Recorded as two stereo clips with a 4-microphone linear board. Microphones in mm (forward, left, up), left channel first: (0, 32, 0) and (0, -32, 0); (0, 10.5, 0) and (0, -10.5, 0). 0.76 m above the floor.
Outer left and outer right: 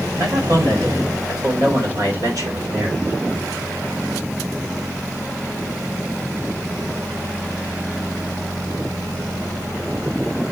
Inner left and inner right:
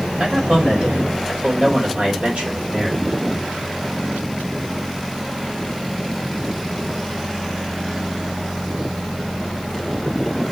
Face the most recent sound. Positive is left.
turn(degrees=-70)  # may be behind; listen again after turning